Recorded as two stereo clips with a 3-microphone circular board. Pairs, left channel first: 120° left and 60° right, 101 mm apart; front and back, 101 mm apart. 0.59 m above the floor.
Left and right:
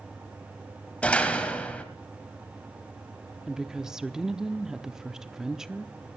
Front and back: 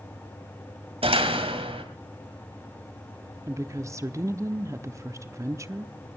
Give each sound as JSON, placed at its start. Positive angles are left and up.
{"t": 1.0, "sound": "a door slam", "azimuth_deg": -165, "distance_m": 2.0}
{"t": 3.5, "sound": "a woman speaking", "azimuth_deg": -140, "distance_m": 0.8}